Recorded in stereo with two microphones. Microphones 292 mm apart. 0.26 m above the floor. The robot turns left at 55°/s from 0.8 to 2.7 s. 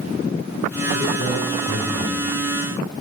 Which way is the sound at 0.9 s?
90° left.